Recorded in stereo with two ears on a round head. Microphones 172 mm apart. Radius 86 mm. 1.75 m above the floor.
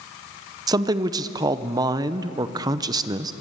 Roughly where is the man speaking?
Right.